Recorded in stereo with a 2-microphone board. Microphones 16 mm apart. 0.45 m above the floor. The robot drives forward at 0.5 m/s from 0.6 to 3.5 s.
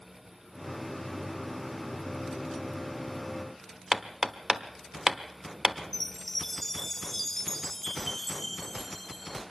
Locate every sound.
3.9 s hammering: 35° right (ahead or behind), 0.9 m
5.9 s a chime: 10° left (ahead or behind), 0.8 m